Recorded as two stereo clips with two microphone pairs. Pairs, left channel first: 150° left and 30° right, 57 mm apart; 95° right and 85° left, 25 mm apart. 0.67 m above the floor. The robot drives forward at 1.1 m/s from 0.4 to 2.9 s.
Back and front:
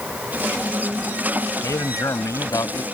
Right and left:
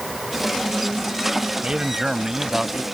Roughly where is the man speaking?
Behind left.